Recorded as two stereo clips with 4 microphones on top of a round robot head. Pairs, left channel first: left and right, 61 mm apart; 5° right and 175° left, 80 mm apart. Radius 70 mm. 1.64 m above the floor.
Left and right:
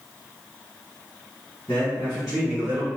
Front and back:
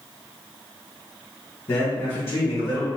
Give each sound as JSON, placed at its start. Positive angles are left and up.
{"t": 1.7, "sound": "a man speaking", "azimuth_deg": 35, "distance_m": 1.0}